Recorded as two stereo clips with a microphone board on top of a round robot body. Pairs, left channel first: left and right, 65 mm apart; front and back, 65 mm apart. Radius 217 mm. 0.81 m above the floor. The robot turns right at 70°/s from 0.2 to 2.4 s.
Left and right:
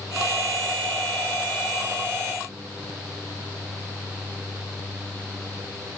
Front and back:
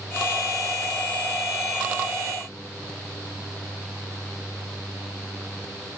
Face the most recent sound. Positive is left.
No sound to turn to.